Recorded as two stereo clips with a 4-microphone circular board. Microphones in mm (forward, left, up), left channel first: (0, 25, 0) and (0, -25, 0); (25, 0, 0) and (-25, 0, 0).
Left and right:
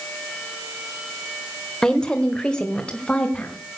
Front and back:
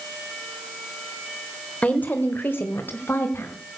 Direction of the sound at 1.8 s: 25° left.